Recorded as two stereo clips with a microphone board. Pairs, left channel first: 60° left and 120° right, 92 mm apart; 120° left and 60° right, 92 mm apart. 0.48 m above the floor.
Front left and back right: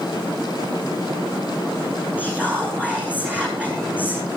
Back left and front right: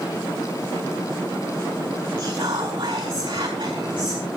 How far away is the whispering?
About 4.5 m.